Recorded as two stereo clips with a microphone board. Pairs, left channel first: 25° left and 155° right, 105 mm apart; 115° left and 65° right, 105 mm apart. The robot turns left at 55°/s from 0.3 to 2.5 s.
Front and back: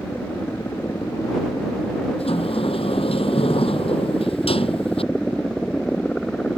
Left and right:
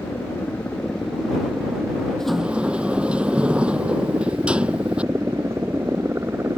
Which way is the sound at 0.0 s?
75° left.